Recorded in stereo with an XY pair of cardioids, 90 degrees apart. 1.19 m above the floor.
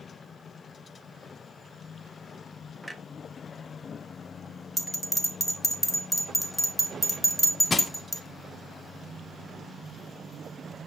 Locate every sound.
2.8 s a clunk: 10° right, 0.7 m
4.8 s a bell: 5° right, 1.3 m
7.7 s crushing: 35° left, 0.5 m